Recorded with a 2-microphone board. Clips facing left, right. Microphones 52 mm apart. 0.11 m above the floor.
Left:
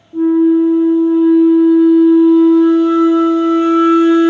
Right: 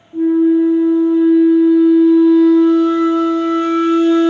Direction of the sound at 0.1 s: 25° left (ahead or behind).